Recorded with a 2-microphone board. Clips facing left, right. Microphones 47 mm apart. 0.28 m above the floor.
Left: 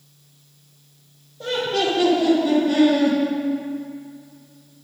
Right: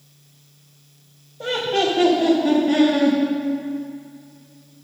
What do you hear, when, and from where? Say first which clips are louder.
1.4 s laughter: right 1 dB; 35° right (ahead or behind), 1.5 m; by 3.2 s 40° right (ahead or behind), 2.5 m